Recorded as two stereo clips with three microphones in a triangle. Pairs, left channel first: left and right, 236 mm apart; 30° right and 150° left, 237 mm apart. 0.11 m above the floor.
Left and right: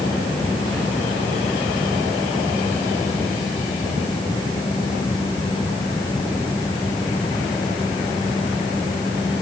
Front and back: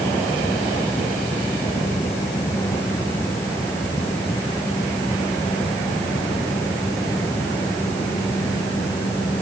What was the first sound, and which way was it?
Only background noise.